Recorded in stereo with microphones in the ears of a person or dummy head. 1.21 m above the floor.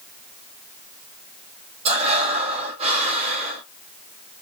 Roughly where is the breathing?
Right.